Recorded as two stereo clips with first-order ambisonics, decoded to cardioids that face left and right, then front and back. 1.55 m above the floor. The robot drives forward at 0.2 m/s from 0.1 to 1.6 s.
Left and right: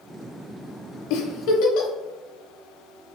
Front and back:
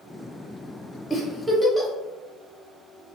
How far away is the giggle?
About 0.5 m.